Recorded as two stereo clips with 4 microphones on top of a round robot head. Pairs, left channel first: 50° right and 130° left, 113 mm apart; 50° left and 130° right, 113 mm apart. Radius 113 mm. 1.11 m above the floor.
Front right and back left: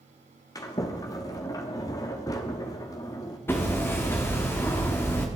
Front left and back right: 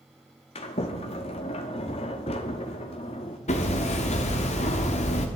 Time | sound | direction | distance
0.6 | a sliding door | 10° left | 1.0 m
3.5 | hammering | 20° left | 1.3 m